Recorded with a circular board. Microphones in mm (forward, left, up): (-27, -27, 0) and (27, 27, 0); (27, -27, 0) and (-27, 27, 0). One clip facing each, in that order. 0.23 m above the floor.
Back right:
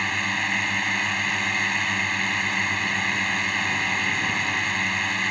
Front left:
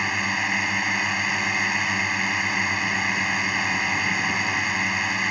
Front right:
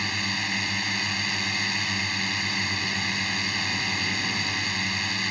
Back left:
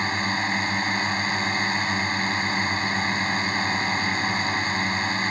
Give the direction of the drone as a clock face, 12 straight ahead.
8 o'clock.